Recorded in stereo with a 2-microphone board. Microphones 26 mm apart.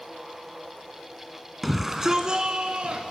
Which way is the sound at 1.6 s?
Centre (ahead or behind).